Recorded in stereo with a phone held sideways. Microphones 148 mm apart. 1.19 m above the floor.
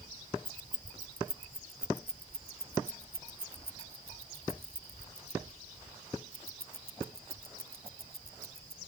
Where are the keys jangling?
70° right (ahead or behind); by 8.8 s 85° right.